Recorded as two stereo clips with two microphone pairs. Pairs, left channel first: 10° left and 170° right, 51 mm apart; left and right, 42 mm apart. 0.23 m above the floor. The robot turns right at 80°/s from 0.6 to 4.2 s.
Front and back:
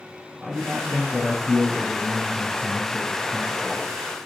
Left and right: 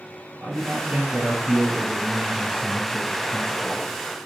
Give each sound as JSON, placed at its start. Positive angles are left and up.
{"t": 0.4, "sound": "a man speaking", "azimuth_deg": -100, "distance_m": 3.0}